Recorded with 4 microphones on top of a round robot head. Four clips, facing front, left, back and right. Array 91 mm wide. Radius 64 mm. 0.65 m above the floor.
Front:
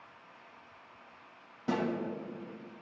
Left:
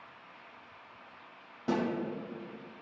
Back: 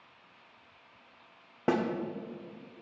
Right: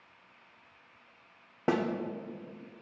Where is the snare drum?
140° right, 0.8 m.